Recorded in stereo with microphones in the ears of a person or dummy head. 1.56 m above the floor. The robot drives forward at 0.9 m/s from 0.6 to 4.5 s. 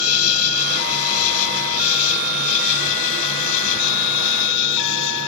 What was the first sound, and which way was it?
An insect, 90° left.